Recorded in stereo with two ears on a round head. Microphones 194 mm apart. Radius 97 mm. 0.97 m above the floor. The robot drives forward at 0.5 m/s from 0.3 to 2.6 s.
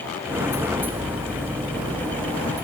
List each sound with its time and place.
Only background noise.